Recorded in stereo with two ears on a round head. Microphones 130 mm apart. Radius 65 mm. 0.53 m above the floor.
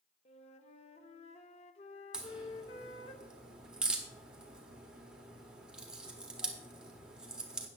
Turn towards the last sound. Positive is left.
turn(degrees=-5)  # may be behind; listen again after turning